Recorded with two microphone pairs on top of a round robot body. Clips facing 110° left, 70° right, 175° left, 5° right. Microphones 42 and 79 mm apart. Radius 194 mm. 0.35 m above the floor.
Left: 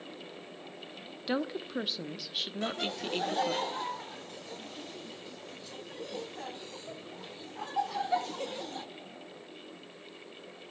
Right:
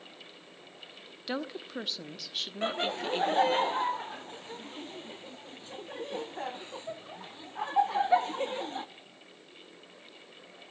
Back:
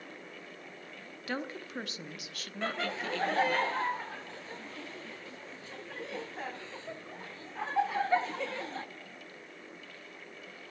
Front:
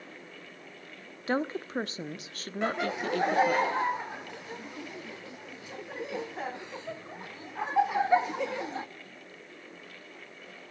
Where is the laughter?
70° right, 1.0 m.